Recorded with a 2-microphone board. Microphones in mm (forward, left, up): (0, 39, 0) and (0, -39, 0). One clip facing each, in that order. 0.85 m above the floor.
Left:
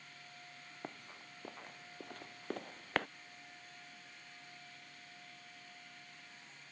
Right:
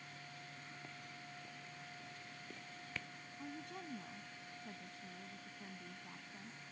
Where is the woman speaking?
80° right.